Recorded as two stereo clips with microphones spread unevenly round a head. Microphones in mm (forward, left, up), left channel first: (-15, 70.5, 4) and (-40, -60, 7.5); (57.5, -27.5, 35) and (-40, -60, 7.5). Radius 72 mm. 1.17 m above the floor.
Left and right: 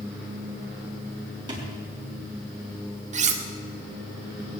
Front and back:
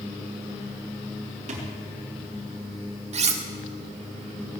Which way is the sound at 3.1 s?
135° right.